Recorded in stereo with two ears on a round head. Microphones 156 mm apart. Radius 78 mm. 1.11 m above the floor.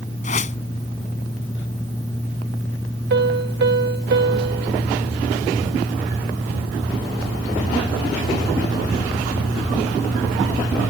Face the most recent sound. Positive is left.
turn(degrees=-70)  # may be behind; listen again after turning